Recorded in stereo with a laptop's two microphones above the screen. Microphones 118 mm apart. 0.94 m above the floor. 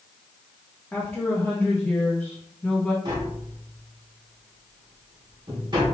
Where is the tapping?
40° right (ahead or behind), 0.8 m.